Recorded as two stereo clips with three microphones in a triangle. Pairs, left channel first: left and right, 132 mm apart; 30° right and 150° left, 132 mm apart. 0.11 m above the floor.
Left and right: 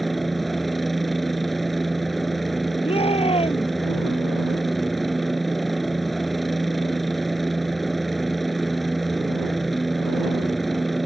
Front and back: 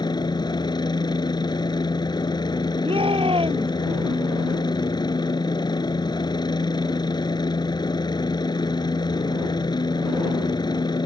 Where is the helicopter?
Straight ahead.